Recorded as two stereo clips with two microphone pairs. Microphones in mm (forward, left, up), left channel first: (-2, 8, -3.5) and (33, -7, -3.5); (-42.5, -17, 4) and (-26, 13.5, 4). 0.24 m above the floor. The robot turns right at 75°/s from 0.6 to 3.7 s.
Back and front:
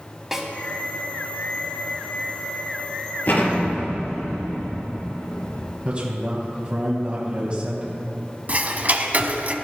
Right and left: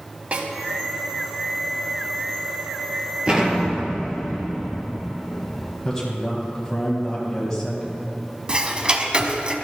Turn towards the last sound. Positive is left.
turn(degrees=10)